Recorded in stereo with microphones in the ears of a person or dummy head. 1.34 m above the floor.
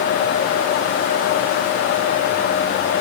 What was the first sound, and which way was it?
Only background noise.